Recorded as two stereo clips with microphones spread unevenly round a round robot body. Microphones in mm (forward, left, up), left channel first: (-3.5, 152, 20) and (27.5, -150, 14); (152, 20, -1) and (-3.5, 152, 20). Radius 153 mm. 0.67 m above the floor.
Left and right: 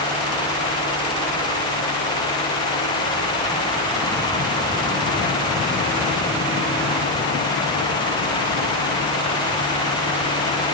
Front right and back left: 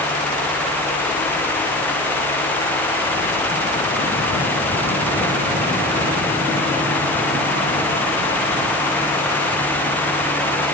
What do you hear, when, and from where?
Only background noise.